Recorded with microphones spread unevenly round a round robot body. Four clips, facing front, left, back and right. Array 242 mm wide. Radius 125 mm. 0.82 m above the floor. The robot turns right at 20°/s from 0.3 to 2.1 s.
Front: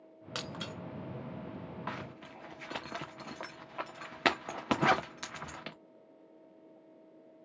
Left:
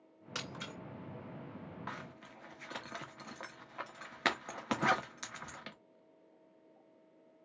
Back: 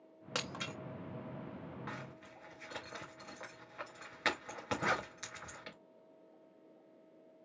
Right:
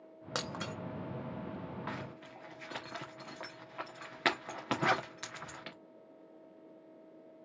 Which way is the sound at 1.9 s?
5° right.